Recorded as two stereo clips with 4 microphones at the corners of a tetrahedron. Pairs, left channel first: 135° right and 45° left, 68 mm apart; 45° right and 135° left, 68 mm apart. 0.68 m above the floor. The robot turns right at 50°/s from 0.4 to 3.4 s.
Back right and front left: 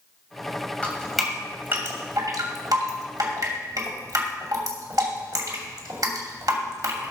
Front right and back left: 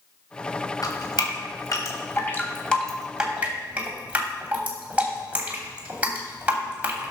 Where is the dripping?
60° right, 2.5 m; by 7.1 s 70° left, 2.5 m.